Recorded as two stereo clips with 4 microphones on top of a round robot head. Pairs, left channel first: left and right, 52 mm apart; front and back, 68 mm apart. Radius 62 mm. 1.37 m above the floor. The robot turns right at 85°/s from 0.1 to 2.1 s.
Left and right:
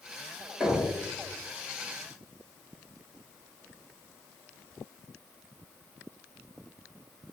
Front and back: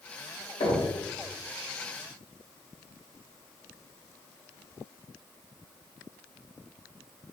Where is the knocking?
15° right, 1.6 m; by 0.9 s 15° left, 1.6 m.